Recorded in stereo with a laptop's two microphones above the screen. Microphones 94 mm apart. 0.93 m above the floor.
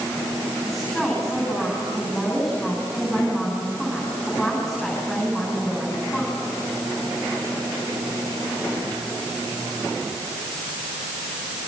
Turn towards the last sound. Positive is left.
turn(degrees=5)  # may be behind; listen again after turning